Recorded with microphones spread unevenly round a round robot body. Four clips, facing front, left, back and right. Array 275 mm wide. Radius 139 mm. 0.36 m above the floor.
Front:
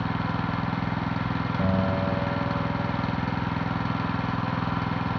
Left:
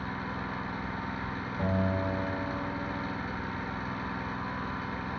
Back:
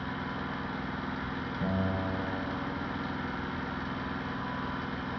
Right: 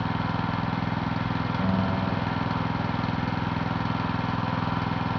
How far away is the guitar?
About 6 m.